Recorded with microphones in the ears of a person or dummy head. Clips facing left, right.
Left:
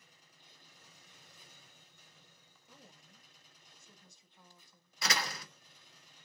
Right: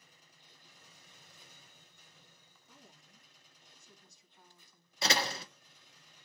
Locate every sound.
2.6 s a woman speaking: 25° left (ahead or behind), 1.6 m
5.0 s a door slam: 25° right (ahead or behind), 0.6 m